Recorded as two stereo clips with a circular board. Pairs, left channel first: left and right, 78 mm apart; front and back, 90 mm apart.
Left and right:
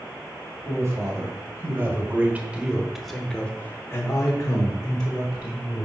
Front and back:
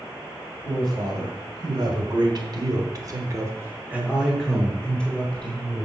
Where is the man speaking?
140° right, 2.5 m; by 5.8 s 70° left, 1.8 m.